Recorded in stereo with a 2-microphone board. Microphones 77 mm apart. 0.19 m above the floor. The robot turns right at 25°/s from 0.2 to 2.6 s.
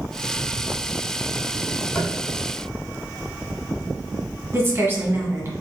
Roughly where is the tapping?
Centre.